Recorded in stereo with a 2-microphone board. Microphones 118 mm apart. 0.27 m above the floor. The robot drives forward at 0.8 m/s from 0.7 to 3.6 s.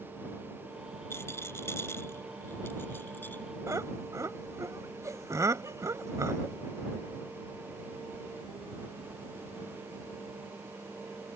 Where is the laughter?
25° right (ahead or behind).